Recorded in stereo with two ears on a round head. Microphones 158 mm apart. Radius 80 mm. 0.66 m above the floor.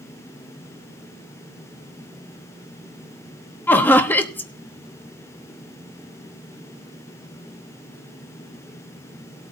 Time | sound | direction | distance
3.7 | laughter | 10° left (ahead or behind) | 1.0 m